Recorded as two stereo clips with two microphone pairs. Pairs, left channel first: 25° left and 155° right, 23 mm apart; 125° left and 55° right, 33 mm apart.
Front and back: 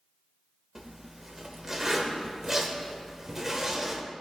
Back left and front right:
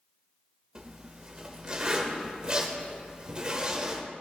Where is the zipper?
95° right, 1.0 m.